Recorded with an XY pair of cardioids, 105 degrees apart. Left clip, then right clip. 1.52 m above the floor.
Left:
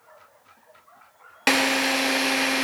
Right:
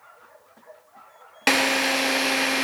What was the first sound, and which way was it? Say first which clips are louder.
A drill: even; straight ahead.